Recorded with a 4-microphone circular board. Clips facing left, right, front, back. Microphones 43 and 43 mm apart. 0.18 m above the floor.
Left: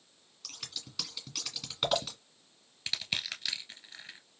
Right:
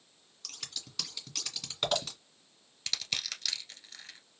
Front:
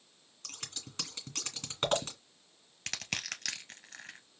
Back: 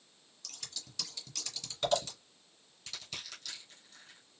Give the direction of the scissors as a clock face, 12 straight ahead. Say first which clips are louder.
Even, front 3 dB; 12 o'clock.